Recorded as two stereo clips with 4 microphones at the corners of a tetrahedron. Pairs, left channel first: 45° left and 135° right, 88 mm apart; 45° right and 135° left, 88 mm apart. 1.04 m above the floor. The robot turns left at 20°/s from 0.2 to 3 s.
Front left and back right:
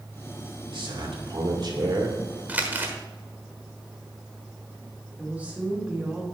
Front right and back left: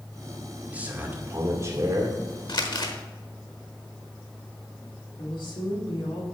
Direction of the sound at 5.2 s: 65° right.